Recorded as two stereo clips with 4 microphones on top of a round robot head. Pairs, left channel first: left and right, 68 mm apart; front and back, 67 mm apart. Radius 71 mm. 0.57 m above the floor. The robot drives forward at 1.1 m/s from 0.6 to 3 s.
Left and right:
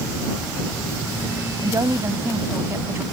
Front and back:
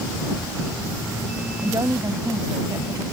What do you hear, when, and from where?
1.6 s a woman speaking: 130° right; by 3.0 s 145° right